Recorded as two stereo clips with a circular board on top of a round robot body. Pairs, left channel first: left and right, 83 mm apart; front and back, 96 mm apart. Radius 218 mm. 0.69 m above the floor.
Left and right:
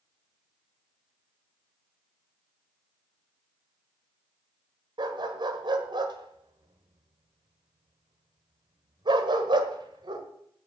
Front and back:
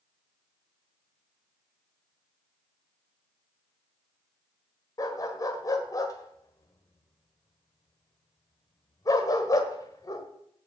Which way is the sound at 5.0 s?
55° right.